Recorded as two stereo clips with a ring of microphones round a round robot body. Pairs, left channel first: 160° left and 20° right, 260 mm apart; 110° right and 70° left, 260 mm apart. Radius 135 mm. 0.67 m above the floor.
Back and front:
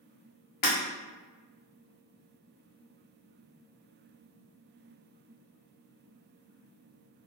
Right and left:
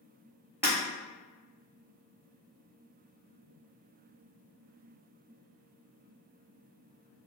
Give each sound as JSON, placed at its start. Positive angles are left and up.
{"t": 0.6, "sound": "breaking glass", "azimuth_deg": 150, "distance_m": 1.3}